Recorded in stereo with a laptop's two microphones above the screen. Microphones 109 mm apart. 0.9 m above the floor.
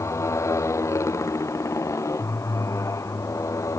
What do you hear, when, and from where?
0.0 s a motorcycle: 25° left (ahead or behind)